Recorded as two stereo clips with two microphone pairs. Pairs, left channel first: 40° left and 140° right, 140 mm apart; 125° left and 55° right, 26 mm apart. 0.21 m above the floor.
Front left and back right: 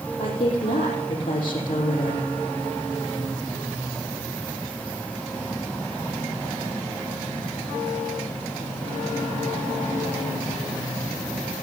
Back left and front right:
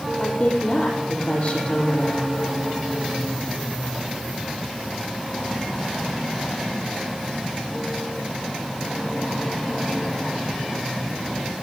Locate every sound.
0.2 s a woman speaking: 95° left, 5.5 m